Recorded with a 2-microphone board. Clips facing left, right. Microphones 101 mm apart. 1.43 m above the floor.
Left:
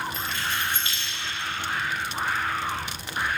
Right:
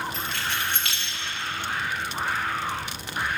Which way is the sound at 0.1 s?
75° right (ahead or behind).